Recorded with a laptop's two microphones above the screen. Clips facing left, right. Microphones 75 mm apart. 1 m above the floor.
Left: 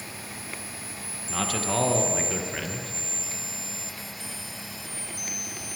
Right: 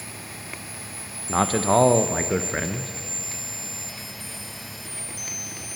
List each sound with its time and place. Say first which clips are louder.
1.3 s a man speaking: right 9 dB; 35° right (ahead or behind), 0.6 m